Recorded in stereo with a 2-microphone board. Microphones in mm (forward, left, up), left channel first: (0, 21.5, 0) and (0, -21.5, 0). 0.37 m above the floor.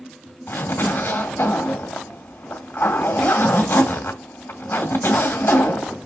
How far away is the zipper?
About 2 m.